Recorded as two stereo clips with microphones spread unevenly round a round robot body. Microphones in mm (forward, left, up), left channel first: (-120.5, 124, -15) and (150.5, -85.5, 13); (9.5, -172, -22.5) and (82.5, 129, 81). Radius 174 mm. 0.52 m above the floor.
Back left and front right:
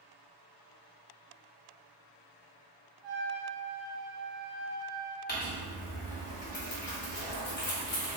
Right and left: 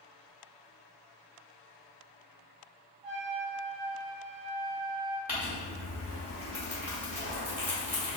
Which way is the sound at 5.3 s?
Straight behind.